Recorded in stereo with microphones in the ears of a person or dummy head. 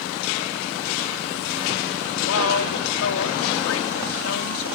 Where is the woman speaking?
80° left.